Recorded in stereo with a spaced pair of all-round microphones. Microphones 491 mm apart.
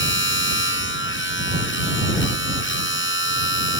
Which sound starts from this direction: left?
A machine running, at 0.0 s.